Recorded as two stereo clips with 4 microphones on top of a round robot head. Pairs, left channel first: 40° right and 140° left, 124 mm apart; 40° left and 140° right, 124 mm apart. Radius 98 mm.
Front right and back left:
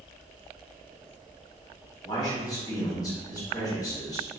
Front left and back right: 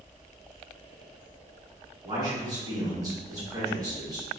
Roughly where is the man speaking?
Right.